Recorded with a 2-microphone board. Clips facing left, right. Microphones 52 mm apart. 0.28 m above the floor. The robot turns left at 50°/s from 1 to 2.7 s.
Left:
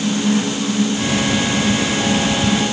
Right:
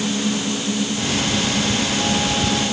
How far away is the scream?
No scream in this recording.